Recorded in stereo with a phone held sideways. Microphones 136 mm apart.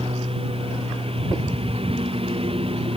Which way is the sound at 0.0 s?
45° right (ahead or behind).